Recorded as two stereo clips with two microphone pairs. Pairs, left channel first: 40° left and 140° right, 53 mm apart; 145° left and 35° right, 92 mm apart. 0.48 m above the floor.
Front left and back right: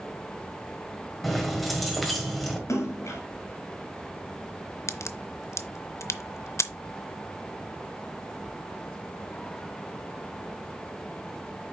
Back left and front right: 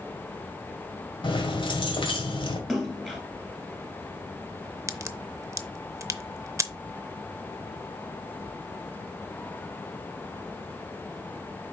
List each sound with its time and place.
1.2 s keys jangling: 125° left, 1.6 m
2.7 s a splash: 60° left, 2.0 m
4.9 s a crack: 20° left, 0.5 m